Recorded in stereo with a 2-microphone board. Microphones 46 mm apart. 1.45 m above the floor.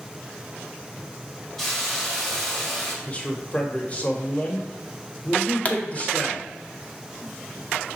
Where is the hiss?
10° left (ahead or behind), 1.9 m.